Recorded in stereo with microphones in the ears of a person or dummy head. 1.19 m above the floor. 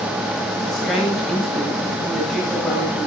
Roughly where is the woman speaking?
Centre.